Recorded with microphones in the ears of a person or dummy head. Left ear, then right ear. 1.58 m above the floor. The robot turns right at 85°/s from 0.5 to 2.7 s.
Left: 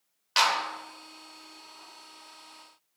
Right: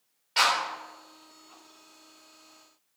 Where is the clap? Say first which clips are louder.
Even; 45° left (ahead or behind), 1.5 m; by 0.6 s 50° left (ahead or behind), 1.5 m.